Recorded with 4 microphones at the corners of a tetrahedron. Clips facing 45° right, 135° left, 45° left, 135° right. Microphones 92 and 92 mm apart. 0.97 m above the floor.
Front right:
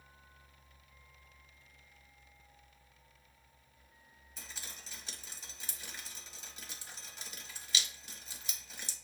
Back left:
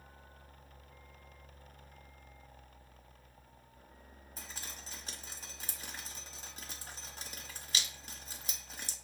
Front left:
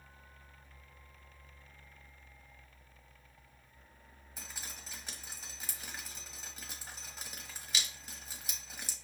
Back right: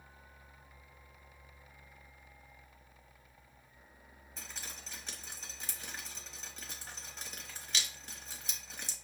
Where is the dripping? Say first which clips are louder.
Back left 2 dB, even; 120° left, 1.0 m.